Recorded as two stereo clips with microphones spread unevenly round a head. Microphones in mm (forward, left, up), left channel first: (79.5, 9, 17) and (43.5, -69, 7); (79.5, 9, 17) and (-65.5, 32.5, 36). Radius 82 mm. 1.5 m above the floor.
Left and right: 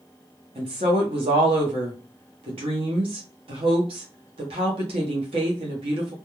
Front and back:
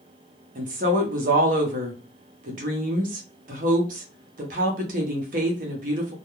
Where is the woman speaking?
150° right, 0.7 m.